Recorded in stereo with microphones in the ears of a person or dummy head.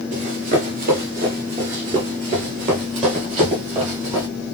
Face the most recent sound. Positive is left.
turn(degrees=-30)  # may be behind; listen again after turning